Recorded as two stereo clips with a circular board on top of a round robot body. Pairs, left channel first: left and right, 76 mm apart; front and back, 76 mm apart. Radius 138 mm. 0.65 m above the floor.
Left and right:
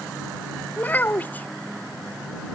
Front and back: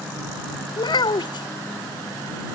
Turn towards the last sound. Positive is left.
turn(degrees=20)